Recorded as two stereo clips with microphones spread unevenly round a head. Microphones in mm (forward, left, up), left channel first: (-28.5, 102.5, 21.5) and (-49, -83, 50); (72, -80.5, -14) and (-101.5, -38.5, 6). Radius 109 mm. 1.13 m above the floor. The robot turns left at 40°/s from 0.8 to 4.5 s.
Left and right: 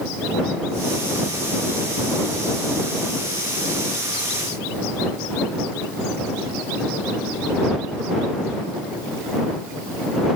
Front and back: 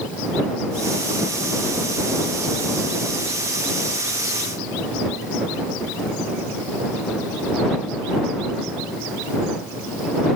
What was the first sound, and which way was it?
Only background noise.